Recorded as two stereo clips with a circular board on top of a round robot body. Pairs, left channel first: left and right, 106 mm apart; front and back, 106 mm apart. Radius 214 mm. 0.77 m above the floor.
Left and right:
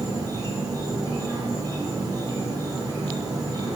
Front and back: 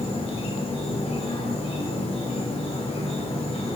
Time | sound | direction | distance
0.0 | an insect | 35° right | 1.0 m